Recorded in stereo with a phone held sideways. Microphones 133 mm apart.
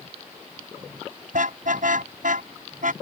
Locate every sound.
1.3 s a car horn: 85° right; by 2.9 s 75° right (ahead or behind)